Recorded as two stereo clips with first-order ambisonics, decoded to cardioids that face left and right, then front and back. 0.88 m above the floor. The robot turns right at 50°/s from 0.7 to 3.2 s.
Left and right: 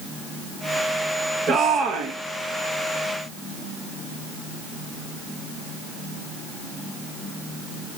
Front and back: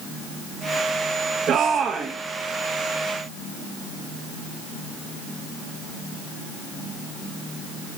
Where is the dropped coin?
No dropped coin in this recording.